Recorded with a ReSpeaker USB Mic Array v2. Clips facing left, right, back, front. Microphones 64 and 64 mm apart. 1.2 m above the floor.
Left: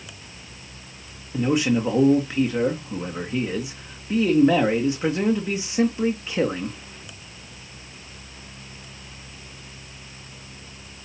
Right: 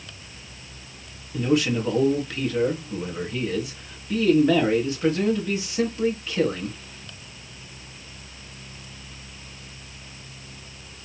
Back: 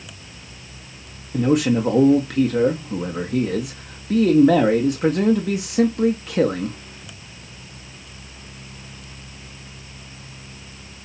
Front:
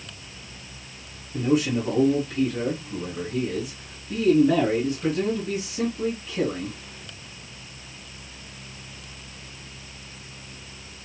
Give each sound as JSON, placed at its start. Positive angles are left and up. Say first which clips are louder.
{"t": 1.3, "sound": "a man speaking", "louder": "left 1 dB, back 4 dB", "azimuth_deg": 160, "distance_m": 1.3}